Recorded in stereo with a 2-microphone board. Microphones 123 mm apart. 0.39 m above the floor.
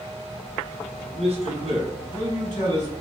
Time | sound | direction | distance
1.0 | a man speaking | 65° right (ahead or behind) | 2.5 m